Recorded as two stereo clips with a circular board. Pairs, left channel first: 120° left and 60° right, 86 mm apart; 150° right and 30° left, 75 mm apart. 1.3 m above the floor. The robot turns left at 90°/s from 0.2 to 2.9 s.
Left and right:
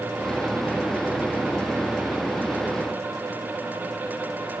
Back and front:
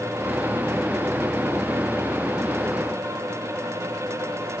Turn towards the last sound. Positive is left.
No sound to turn to.